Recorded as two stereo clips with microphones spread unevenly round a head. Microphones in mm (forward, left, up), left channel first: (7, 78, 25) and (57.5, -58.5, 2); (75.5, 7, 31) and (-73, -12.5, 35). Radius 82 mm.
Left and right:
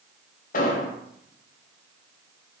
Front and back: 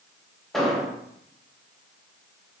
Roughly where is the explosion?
Left.